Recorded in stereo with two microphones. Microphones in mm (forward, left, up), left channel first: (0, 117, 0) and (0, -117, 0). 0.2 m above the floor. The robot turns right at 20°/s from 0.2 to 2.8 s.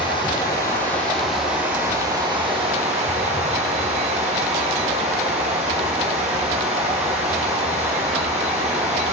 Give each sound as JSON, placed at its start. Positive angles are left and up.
{"t": 0.0, "sound": "running water", "azimuth_deg": 160, "distance_m": 3.0}